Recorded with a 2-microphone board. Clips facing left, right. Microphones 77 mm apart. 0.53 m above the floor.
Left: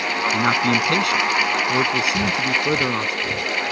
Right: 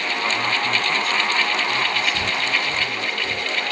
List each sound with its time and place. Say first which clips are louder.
0.3 s a man speaking: left 7 dB; 75° left (ahead or behind)
2.1 s breathing: left 2 dB; 30° left (ahead or behind)